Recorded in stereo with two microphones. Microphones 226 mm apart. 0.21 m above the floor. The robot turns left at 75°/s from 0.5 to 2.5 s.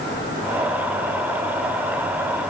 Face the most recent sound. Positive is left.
No sound to turn to.